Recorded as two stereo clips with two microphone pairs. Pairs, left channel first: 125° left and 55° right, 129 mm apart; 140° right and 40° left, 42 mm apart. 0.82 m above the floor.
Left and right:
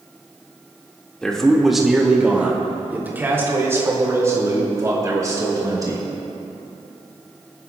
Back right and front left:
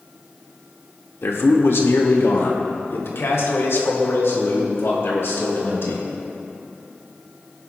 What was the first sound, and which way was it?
A man speaking, 155° right.